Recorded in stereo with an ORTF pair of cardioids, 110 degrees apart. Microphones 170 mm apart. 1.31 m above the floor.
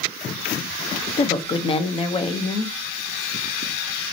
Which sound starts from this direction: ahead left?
A woman speaking, at 1.2 s.